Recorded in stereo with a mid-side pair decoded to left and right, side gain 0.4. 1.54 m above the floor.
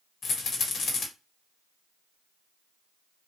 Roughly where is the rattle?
Ahead left.